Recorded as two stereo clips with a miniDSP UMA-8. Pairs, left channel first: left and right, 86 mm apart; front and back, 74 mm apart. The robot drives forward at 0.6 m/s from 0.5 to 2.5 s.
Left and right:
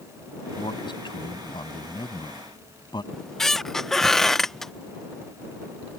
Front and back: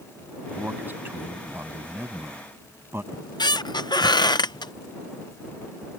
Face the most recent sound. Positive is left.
turn(degrees=5)